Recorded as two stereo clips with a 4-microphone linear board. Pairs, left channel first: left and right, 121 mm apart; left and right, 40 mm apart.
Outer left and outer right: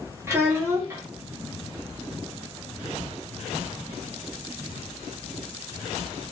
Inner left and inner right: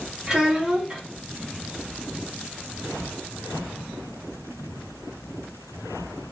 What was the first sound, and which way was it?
A child speaking, 20° right (ahead or behind).